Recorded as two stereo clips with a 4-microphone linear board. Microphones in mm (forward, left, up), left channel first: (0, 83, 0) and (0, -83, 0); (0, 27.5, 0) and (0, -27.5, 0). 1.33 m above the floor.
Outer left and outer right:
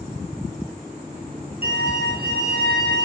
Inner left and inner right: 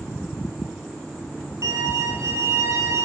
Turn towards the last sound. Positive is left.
turn(degrees=-70)  # may be behind; listen again after turning